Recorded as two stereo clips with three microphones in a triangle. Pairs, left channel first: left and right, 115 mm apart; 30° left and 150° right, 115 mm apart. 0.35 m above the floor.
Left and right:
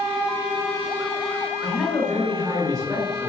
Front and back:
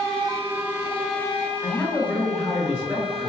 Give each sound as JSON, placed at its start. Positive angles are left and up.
{"t": 1.6, "sound": "a man speaking", "azimuth_deg": 45, "distance_m": 1.0}